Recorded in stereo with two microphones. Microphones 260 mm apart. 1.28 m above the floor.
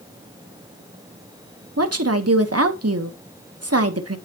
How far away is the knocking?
No knocking in this recording.